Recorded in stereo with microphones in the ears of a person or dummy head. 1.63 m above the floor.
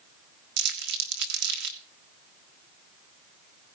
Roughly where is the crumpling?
Right.